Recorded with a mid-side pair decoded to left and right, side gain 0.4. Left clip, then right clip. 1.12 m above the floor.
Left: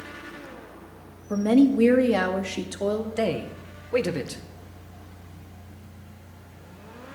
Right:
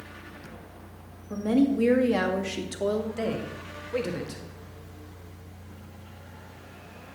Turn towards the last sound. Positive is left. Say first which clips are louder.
# left 4 dB
turn(degrees=50)